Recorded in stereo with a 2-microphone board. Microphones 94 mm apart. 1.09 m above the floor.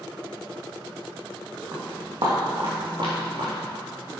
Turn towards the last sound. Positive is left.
turn(degrees=-75)  # may be behind; listen again after turning